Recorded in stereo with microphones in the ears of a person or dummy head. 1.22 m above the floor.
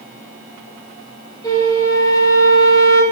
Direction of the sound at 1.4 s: 15° left (ahead or behind).